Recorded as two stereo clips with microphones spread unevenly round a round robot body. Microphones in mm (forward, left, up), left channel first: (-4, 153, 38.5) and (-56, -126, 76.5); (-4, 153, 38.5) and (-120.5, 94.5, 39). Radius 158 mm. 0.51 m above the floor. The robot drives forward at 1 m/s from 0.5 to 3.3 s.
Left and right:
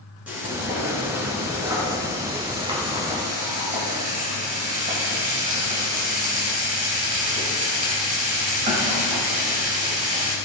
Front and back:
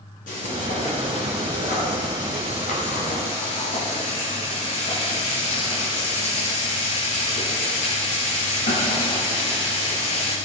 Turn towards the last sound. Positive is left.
turn(degrees=-35)